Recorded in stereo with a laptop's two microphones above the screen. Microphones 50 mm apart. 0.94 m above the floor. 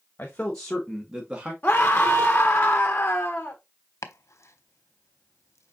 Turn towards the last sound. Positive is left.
turn(degrees=65)  # may be behind; listen again after turning